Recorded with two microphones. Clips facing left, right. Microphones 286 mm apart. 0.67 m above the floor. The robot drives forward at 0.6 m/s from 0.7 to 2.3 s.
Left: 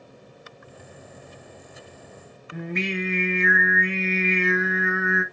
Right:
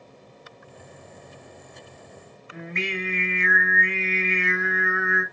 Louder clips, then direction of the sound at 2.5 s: Left 4 dB; 45° left (ahead or behind).